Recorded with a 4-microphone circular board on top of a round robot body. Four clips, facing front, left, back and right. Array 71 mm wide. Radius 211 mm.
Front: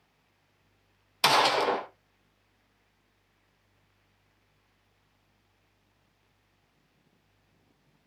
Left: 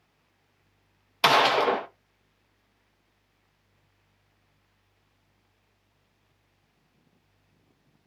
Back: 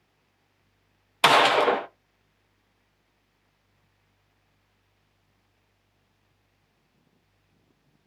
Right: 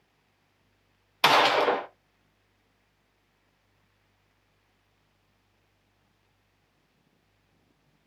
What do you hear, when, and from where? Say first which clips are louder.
1.2 s a gunshot: even, back 5 dB; 175° right, 0.8 m